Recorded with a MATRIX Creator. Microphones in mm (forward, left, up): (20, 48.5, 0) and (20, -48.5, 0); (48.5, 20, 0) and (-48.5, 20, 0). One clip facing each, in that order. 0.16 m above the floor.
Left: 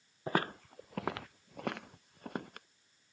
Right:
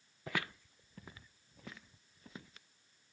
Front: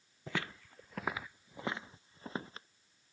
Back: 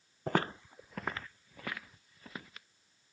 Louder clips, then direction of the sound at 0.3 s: Left 7 dB, back 8 dB; 145° left.